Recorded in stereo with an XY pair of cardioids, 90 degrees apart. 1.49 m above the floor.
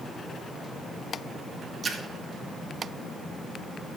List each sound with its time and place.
1.8 s a splash: 45° right, 1.7 m